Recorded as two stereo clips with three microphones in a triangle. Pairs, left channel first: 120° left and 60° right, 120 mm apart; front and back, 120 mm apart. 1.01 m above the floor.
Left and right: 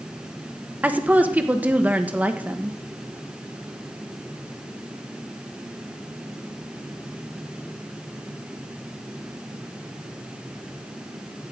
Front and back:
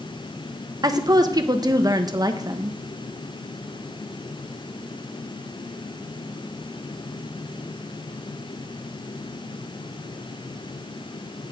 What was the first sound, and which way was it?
A woman speaking, 135° right.